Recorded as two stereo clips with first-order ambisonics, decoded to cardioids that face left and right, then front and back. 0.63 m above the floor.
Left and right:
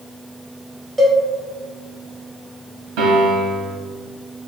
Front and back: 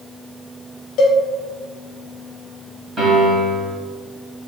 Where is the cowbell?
10° right, 0.7 m.